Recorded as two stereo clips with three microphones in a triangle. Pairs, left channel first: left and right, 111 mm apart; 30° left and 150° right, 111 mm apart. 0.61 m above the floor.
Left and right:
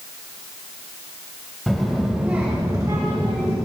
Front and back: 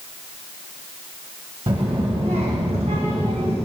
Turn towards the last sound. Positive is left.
turn(degrees=-125)